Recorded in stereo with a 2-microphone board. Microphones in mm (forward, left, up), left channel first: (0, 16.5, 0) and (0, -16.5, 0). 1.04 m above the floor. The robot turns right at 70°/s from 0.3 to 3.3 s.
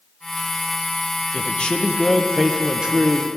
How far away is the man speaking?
About 0.7 m.